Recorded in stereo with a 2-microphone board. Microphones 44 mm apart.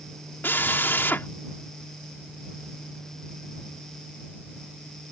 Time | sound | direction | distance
0.4 | a drill | 50° left (ahead or behind) | ?